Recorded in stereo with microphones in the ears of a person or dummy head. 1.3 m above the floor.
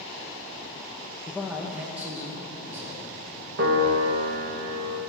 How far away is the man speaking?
About 0.7 m.